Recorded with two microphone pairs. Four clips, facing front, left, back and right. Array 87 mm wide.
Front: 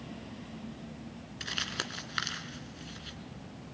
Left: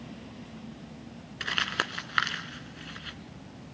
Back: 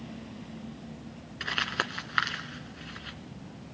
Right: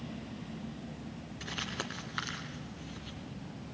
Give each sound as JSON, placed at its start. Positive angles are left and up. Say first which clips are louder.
{"t": 1.4, "sound": "crumpling", "louder": "left 9 dB, back 7 dB", "azimuth_deg": 140, "distance_m": 1.8}